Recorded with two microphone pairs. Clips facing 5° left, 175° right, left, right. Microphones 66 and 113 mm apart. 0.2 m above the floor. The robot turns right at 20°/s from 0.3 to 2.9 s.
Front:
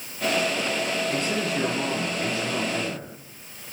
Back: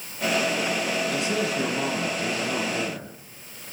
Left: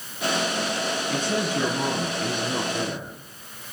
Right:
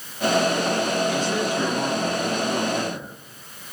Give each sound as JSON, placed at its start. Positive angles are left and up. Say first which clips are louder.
{"t": 1.1, "sound": "a man speaking", "louder": "even, right 2 dB", "azimuth_deg": 50, "distance_m": 4.0}